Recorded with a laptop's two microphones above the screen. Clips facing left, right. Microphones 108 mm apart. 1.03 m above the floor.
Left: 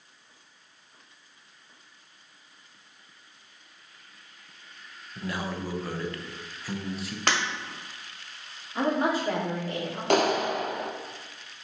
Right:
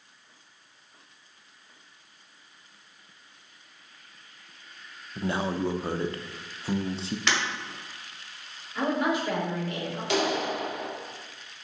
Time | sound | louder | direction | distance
5.2 | a man speaking | right 5 dB | 30° right (ahead or behind) | 0.6 m
7.3 | breaking glass | left 2 dB | 55° left (ahead or behind) | 1.5 m
8.8 | a woman speaking | left 1 dB | 35° left (ahead or behind) | 2 m
10.1 | a clap | left 4 dB | 55° left (ahead or behind) | 0.7 m